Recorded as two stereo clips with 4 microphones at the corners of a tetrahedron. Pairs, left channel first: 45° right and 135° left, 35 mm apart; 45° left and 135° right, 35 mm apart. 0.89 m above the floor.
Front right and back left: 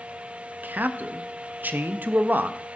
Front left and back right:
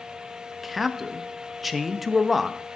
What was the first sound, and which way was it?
A man speaking, 135° left.